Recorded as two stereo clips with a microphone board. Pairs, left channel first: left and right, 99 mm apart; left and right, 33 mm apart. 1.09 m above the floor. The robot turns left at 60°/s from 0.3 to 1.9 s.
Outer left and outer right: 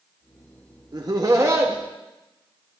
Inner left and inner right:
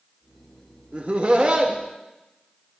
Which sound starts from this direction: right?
Laughter, at 0.9 s.